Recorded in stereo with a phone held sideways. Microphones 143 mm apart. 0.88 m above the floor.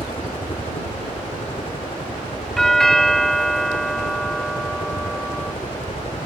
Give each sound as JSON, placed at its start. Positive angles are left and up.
{"t": 0.0, "sound": "a helicopter", "side_deg": 40}
{"t": 2.6, "sound": "a doorbell", "side_deg": 0}